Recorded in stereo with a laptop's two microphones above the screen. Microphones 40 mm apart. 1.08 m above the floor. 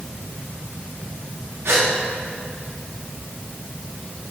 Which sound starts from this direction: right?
A gasp, at 1.6 s.